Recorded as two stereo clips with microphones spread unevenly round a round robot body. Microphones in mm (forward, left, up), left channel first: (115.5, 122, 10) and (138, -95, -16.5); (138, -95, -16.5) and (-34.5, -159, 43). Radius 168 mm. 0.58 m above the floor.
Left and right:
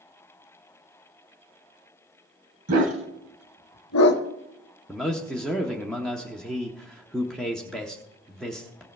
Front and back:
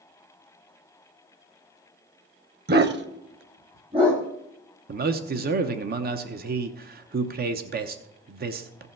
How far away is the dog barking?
About 1.1 m.